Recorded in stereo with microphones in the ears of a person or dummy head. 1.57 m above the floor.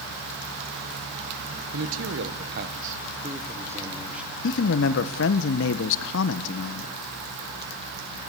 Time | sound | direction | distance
1.7 | a man speaking | 85° right | 1.6 m
4.4 | a man speaking | 65° left (ahead or behind) | 1.2 m